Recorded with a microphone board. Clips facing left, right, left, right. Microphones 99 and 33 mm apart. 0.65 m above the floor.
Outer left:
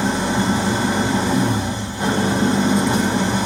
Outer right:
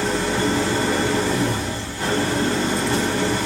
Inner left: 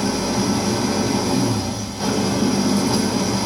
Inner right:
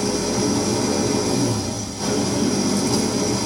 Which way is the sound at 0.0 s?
20° left (ahead or behind).